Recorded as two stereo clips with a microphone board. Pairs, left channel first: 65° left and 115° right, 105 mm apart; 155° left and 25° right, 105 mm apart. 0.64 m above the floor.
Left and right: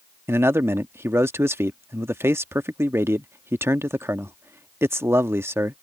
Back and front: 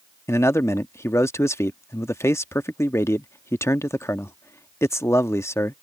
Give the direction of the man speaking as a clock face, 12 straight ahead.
5 o'clock.